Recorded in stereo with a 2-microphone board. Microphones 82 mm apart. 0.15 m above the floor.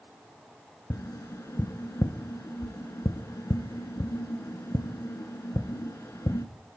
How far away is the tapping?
About 0.6 m.